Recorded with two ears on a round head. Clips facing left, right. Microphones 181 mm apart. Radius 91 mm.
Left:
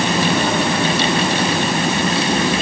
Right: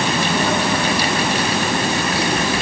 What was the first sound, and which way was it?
Only background noise.